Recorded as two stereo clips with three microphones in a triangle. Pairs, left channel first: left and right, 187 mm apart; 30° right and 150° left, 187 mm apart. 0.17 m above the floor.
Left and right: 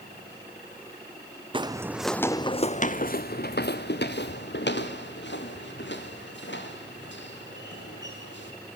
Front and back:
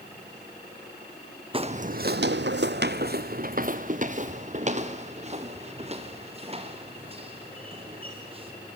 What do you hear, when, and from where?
1.5 s footsteps: 150° right, 0.7 m; by 8.5 s 90° left, 4.5 m